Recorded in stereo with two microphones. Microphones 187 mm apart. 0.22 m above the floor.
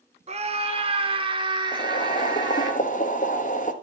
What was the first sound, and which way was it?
A scream, 35° right (ahead or behind).